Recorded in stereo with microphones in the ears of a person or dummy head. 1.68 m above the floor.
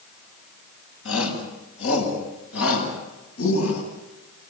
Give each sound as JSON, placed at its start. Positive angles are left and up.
{"t": 1.1, "sound": "a shout", "side_deg": 75, "distance_m": 8.0}